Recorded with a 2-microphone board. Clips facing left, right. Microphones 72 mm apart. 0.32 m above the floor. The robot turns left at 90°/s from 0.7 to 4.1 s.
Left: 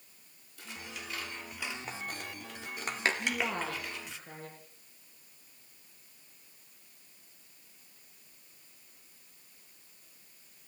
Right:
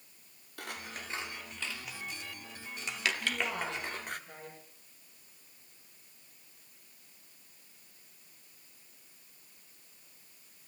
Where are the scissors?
70° right (ahead or behind), 2.5 m; by 4.2 s 55° right (ahead or behind), 2.5 m.